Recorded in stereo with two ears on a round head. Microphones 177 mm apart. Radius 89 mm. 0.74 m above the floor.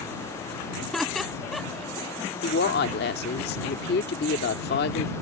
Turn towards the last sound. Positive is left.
turn(degrees=55)  # may be behind; listen again after turning